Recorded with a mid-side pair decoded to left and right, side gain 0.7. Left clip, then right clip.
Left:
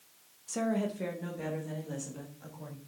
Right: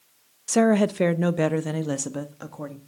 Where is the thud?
I don't hear a thud.